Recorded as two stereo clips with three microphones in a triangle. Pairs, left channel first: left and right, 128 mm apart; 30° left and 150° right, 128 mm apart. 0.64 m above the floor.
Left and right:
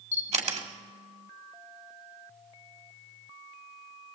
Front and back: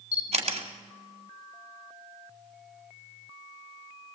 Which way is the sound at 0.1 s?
115° right.